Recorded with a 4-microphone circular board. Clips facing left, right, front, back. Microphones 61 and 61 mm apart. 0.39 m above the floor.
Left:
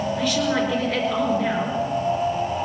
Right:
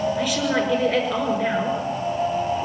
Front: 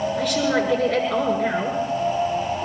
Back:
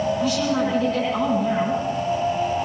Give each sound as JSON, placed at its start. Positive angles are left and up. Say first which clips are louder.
{"t": 0.2, "sound": "a woman speaking", "louder": "even, even", "azimuth_deg": 0, "distance_m": 7.0}